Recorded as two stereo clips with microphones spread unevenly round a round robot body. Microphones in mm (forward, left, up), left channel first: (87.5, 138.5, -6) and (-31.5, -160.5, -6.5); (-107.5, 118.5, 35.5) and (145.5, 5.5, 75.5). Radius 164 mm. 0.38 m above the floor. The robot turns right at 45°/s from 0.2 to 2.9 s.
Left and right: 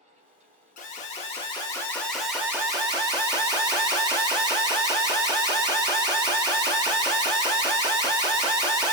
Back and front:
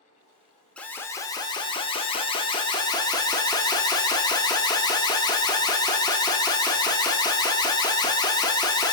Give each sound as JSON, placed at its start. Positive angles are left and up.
{"t": 0.8, "sound": "an alarm", "azimuth_deg": 90, "distance_m": 0.6}